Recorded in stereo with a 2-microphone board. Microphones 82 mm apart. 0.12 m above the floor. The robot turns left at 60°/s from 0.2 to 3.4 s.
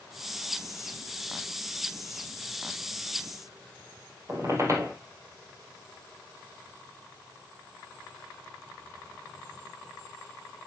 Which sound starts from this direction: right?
A squeak, at 4.3 s.